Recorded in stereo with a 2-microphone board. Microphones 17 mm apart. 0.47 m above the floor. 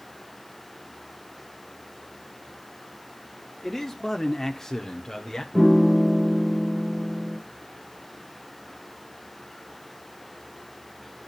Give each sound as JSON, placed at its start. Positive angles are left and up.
{"t": 3.6, "sound": "a man speaking", "side_deg": 10, "distance_m": 1.1}
{"t": 5.5, "sound": "a piano", "side_deg": -20, "distance_m": 5.0}